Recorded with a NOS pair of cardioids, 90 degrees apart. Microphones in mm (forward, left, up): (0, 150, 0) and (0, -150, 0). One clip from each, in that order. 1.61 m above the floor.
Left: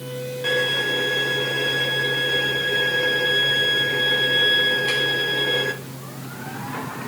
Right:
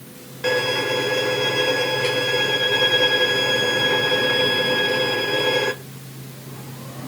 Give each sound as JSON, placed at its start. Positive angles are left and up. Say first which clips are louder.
{"t": 0.4, "sound": "a violin", "louder": "right 1 dB", "azimuth_deg": -45, "distance_m": 1.4}